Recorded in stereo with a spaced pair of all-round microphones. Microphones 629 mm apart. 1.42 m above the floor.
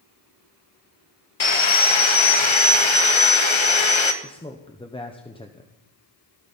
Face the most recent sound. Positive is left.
turn(degrees=10)  # may be behind; listen again after turning